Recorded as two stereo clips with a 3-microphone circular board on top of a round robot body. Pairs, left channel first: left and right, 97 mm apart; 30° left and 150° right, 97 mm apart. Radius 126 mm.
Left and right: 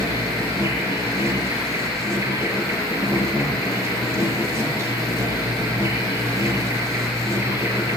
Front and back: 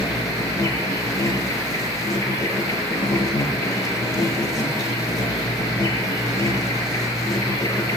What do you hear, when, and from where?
0.0 s an insect: 25° right, 8.5 m